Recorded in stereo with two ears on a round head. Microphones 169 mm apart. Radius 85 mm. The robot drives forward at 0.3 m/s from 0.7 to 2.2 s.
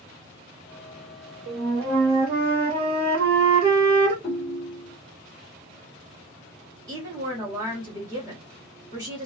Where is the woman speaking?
20° right (ahead or behind), 1.2 m.